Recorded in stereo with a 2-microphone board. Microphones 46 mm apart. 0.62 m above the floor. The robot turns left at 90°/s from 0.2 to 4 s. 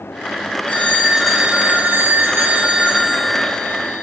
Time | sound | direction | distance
0.7 | a phone ringing | 45° left | 0.8 m